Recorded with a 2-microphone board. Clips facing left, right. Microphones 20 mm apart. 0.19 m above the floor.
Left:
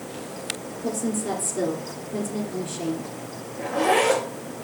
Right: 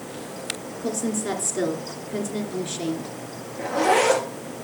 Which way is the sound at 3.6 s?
40° right (ahead or behind).